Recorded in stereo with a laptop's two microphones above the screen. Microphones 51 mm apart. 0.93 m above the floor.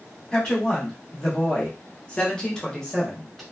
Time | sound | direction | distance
0.3 | a woman speaking | 25° left (ahead or behind) | 1.2 m